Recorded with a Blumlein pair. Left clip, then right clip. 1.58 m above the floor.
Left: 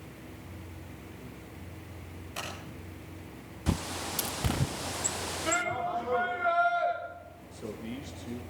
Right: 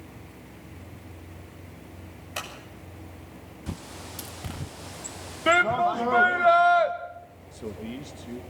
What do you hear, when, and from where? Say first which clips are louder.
2.4 s scissors: right 4 dB; 65° right, 8 m
3.7 s a bird: left 7 dB; 20° left, 0.6 m
5.5 s a shout: right 10 dB; 30° right, 2.5 m
7.5 s a man speaking: right 3 dB; 10° right, 2 m